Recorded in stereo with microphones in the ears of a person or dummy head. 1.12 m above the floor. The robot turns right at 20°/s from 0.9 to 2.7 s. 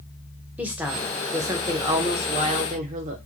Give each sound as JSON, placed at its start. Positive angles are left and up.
{"t": 0.6, "sound": "a woman speaking", "azimuth_deg": -170, "distance_m": 0.6}